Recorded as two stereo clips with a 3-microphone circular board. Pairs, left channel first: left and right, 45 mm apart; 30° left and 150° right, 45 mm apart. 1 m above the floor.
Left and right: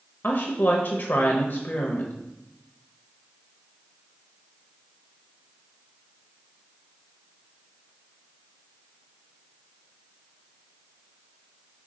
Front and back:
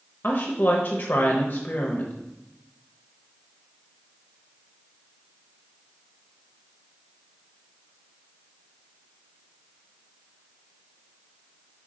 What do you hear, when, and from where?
0.2 s a woman speaking: 65° left, 0.7 m